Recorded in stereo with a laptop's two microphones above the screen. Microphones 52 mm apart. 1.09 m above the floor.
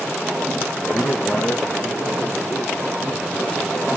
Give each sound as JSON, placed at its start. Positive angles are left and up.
{"t": 0.9, "sound": "a man speaking", "side_deg": 60, "distance_m": 0.5}